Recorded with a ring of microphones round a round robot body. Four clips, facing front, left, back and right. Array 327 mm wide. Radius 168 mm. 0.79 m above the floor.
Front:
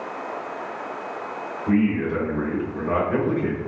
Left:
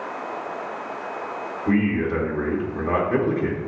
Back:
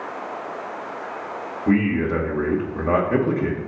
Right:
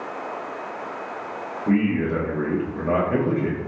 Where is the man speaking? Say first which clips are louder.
Even, back 1 dB; straight behind, 1.0 m.